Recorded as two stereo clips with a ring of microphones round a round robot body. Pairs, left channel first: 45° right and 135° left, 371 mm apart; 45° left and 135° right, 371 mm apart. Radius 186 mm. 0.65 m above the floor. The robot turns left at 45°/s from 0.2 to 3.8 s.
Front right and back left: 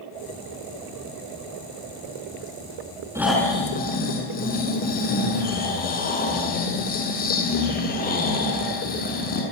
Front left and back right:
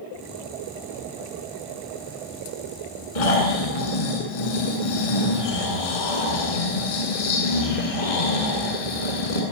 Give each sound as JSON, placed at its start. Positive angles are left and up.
{"t": 3.1, "sound": "snoring", "azimuth_deg": 55, "distance_m": 8.0}